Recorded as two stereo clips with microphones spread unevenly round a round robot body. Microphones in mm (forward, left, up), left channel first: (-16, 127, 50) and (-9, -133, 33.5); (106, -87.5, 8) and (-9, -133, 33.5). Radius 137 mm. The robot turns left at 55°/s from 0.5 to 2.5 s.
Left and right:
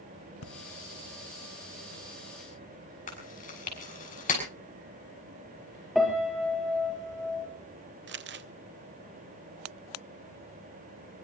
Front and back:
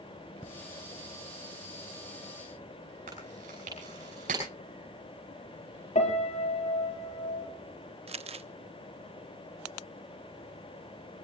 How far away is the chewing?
About 6 m.